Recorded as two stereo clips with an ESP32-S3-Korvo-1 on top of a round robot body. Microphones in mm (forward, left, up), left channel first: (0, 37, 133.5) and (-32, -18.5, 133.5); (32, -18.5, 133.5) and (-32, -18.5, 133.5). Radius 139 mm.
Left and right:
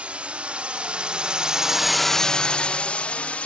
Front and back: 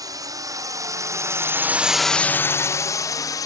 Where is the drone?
170° left; by 3.5 s 10° right.